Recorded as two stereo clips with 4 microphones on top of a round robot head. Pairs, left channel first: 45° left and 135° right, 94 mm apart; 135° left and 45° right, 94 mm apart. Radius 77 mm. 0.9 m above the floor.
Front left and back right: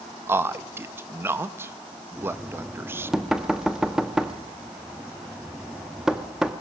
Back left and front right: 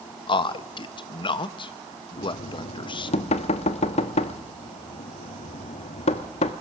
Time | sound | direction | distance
0.3 | a man speaking | 160° left | 1.0 m
2.2 | knocking | 140° left | 0.9 m